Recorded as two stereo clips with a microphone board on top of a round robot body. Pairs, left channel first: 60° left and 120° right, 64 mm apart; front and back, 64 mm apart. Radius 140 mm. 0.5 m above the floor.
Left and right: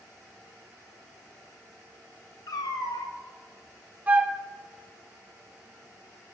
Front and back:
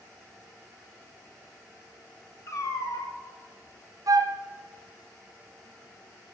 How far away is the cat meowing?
About 0.7 m.